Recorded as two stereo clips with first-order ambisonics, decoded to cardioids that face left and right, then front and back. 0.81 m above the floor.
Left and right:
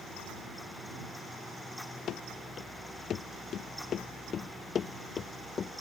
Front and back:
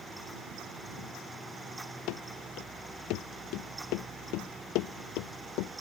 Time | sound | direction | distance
2.1 | running footsteps | 35° left | ?